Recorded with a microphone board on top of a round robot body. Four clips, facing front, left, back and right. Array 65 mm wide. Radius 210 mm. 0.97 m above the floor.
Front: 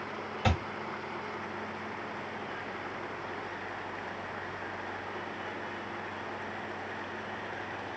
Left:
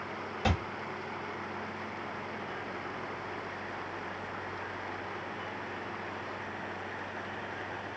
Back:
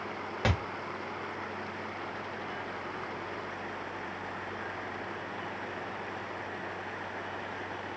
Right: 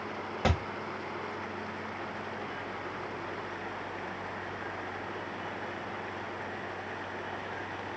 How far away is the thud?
About 1.4 m.